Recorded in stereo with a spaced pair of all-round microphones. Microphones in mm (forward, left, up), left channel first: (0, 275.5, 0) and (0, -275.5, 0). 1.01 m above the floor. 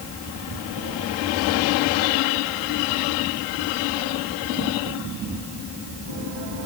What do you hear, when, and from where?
Only background noise.